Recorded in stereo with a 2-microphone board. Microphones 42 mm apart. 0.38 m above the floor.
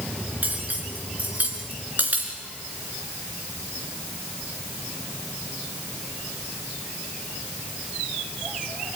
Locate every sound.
0.4 s cutlery clinking: 40° right (ahead or behind), 3 m